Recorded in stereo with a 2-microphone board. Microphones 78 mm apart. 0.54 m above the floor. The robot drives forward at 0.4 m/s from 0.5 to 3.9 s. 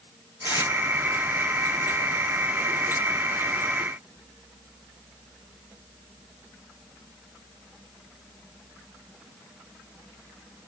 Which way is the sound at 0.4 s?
60° left (ahead or behind).